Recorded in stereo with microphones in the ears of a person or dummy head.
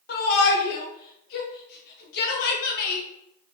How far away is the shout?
About 1.0 m.